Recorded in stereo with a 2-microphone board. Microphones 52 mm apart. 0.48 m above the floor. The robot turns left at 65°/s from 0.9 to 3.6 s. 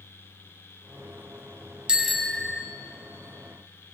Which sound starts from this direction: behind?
A bicycle bell, at 1.9 s.